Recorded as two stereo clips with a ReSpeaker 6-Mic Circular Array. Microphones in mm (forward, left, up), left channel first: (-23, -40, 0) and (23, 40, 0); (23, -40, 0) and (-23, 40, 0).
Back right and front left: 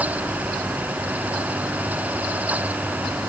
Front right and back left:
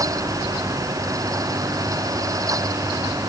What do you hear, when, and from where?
Only background noise.